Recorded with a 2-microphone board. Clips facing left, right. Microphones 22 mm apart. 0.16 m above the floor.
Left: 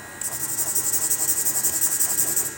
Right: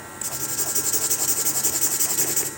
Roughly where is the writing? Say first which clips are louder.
Right 2 dB; right.